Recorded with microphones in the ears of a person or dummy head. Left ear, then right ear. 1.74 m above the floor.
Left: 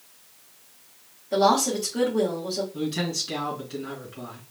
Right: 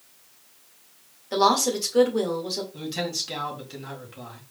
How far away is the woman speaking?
About 2.5 m.